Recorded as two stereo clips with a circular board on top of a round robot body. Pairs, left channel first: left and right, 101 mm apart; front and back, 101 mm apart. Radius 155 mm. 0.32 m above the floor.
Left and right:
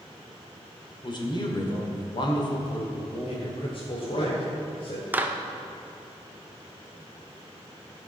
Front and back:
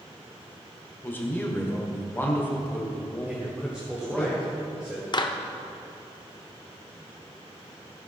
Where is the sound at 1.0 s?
65° left, 2 m.